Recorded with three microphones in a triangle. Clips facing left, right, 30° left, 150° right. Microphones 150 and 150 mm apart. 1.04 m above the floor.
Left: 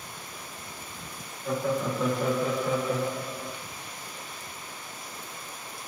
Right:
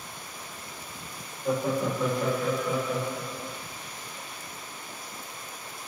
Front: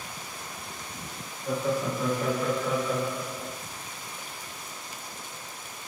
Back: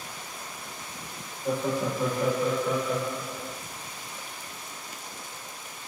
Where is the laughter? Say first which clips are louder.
Right 1 dB, even; 155° right, 1.2 m; by 3.6 s 105° left, 1.3 m.